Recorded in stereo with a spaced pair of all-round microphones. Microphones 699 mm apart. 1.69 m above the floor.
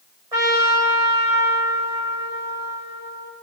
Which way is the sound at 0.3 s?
60° right (ahead or behind).